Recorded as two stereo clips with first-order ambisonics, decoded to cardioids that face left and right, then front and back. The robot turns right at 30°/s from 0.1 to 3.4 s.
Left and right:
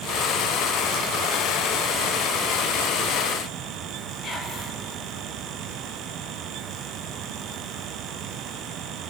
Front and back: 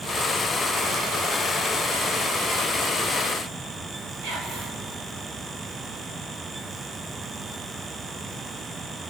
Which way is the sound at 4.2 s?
160° left.